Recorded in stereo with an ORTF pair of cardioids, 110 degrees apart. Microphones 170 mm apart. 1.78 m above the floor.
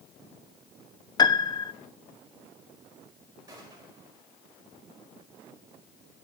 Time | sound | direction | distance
1.2 | a piano | 25° left | 0.6 m
3.5 | a gunshot | 20° right | 5.5 m